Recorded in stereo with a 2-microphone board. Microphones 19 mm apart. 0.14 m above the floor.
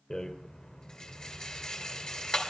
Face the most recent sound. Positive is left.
turn(degrees=50)  # may be behind; listen again after turning